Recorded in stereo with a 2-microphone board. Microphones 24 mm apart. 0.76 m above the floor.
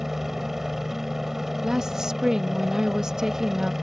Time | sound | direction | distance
0.0 | a helicopter | 15° right (ahead or behind) | ?
1.6 | a woman speaking | 25° right (ahead or behind) | ?